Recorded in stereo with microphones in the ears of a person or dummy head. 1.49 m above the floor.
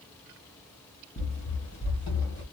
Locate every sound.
1.2 s running footsteps: 35° left (ahead or behind), 1.8 m; by 2.4 s 10° left (ahead or behind), 1.5 m